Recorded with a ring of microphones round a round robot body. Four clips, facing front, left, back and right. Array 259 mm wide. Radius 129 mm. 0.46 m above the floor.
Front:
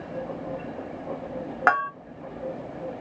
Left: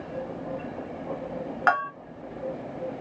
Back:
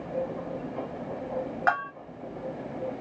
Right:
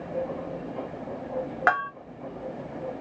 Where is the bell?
15° right, 2.5 m.